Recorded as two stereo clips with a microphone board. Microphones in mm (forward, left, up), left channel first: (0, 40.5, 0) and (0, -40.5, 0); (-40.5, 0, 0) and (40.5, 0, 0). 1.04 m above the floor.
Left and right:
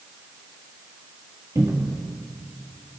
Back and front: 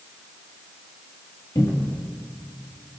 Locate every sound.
1.6 s a cupboard door: 140° right, 1.5 m